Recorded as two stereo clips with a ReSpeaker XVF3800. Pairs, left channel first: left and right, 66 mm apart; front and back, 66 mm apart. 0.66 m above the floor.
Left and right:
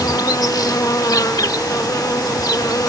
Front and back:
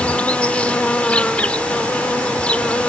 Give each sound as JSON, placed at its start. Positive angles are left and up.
{"t": 0.0, "sound": "an insect", "azimuth_deg": 70}